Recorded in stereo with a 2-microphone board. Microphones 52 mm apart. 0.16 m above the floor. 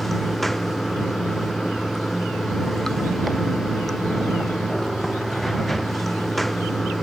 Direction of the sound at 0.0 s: Centre (ahead or behind).